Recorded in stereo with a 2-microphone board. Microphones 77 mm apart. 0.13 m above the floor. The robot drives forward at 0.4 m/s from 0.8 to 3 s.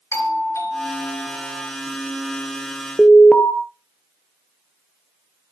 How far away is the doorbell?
About 3.5 m.